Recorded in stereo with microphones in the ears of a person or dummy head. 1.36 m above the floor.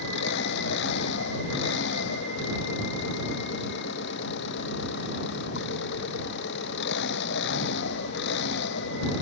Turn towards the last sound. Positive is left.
turn(degrees=70)  # may be behind; listen again after turning